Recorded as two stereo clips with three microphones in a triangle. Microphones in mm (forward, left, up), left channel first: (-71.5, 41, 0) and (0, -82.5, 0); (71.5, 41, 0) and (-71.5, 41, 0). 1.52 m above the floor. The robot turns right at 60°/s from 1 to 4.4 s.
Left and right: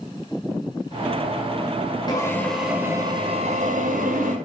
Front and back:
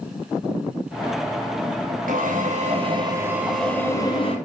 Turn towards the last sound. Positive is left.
turn(degrees=-40)